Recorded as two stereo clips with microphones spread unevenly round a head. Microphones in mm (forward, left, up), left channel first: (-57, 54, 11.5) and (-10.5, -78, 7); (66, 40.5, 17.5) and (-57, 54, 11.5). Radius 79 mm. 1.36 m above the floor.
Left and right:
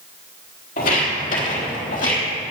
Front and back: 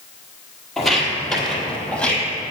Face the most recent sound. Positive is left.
turn(degrees=70)